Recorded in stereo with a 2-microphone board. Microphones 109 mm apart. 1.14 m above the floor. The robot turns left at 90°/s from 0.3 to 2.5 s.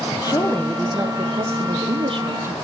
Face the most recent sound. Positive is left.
turn(degrees=-160)